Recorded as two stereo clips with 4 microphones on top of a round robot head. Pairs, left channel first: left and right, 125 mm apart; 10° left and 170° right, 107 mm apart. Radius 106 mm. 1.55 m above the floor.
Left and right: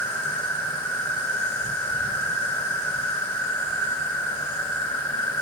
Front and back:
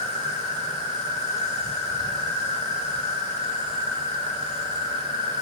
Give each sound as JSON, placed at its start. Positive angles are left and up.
{"t": 0.0, "sound": "an insect", "azimuth_deg": 10, "distance_m": 3.5}